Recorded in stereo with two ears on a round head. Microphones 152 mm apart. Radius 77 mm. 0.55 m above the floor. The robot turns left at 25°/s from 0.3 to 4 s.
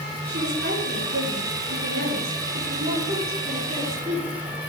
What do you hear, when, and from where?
0.3 s a woman speaking: 65° right, 6.5 m; by 4.4 s 160° right, 6.5 m